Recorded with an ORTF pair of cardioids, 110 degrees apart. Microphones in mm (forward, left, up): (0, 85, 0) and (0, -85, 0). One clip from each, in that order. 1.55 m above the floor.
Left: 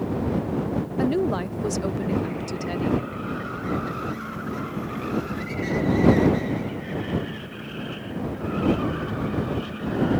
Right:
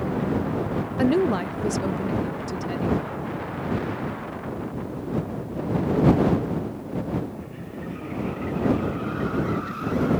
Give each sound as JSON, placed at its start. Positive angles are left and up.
{"t": 1.0, "sound": "a woman speaking", "azimuth_deg": -20}